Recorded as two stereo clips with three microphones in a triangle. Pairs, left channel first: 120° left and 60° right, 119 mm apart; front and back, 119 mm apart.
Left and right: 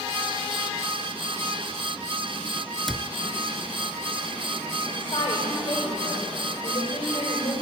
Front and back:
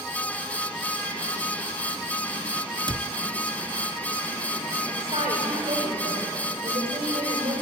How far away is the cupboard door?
About 0.6 m.